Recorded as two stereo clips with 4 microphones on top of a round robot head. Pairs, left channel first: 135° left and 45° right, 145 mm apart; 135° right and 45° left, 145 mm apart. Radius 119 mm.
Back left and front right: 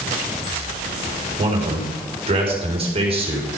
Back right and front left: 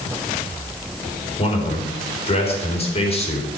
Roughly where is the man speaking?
Right.